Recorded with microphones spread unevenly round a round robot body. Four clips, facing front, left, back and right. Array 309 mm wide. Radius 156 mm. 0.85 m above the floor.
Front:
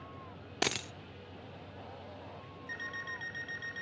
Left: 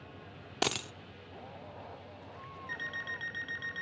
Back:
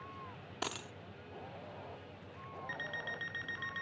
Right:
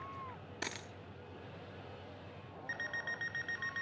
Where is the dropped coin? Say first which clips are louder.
Left 12 dB, front 6 dB; 50° left, 0.6 m.